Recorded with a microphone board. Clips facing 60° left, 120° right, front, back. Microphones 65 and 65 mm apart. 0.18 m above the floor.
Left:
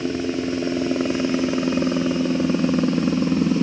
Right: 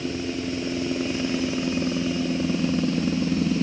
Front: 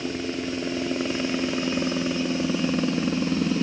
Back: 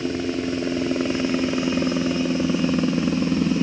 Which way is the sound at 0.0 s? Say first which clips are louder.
Left 5 dB, back 4 dB; 105° left.